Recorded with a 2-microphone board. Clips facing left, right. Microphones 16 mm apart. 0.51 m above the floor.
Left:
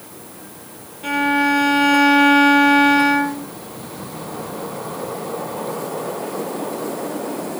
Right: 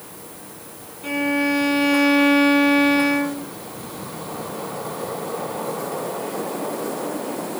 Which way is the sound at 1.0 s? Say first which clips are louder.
Left 4 dB; 35° left (ahead or behind).